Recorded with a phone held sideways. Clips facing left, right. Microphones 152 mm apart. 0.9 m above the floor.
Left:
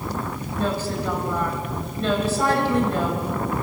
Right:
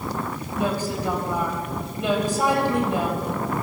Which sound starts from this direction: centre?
A woman speaking, at 0.6 s.